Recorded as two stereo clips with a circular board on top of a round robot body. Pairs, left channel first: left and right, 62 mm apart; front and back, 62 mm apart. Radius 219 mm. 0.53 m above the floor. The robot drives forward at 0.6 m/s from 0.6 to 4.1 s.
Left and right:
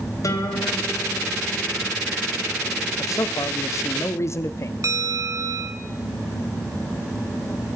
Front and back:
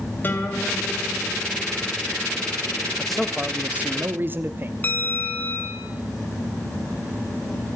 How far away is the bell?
About 2 m.